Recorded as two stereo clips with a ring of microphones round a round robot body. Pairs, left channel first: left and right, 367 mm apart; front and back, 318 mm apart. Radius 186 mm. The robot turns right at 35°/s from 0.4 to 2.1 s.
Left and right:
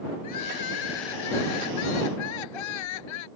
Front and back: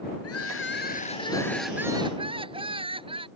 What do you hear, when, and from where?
0.2 s crying: 45° left; by 3.3 s 105° left